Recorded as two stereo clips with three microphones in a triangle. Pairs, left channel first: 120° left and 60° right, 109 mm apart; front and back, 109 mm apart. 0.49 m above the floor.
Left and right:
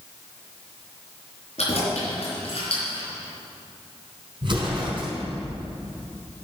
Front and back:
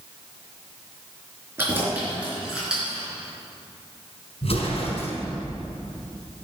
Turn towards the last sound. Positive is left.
turn(degrees=-20)